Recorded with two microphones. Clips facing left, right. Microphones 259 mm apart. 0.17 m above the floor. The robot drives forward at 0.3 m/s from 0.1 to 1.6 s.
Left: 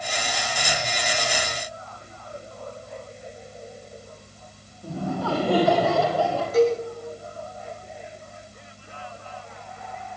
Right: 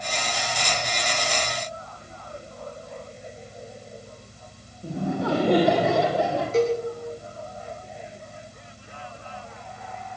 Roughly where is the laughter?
Centre.